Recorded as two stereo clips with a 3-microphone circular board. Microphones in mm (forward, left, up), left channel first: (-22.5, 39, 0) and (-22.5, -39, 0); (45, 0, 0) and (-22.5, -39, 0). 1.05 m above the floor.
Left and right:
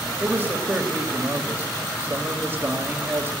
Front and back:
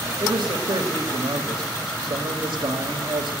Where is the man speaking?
155° right, 1.9 m.